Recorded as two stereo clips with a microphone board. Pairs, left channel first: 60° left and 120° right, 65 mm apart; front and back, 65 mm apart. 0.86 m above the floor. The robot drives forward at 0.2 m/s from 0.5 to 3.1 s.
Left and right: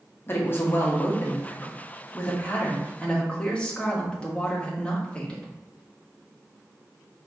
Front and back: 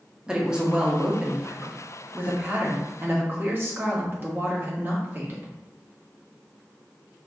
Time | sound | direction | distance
0.3 | a woman speaking | 105° left | 1.1 m